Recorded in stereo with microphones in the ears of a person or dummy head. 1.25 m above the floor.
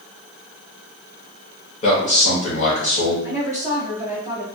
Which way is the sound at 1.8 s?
40° left (ahead or behind).